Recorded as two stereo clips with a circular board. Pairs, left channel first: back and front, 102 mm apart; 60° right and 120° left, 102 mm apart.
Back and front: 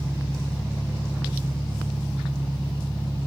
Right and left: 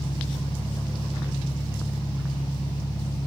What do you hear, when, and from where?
0.0 s an engine running: 65° right, 7.5 m